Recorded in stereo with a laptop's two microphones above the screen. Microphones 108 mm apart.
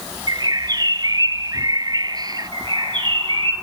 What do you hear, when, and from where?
0.3 s a bird: 40° right (ahead or behind), 0.6 m
2.5 s a bird: 50° right (ahead or behind), 5 m